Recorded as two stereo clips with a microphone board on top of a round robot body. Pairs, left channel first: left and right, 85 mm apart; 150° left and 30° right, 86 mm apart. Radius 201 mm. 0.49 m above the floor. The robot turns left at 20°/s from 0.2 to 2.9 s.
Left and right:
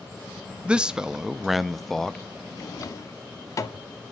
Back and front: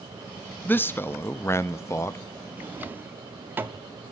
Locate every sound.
0.7 s a man speaking: 160° right, 0.7 m; by 2.2 s 170° left, 0.7 m
2.6 s a drawer: 45° left, 0.6 m; by 3.9 s 40° left, 0.6 m